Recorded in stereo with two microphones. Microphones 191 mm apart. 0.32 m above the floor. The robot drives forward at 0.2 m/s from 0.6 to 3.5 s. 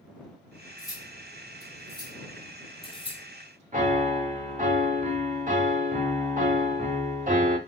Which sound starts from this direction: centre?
Cutlery clinking, at 0.8 s.